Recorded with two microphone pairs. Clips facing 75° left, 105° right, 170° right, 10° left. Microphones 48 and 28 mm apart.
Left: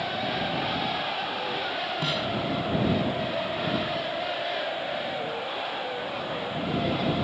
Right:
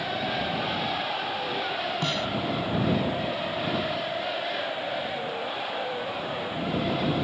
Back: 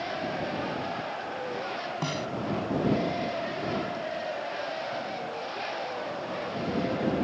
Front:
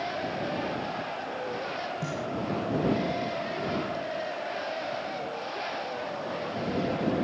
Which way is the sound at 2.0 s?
160° left.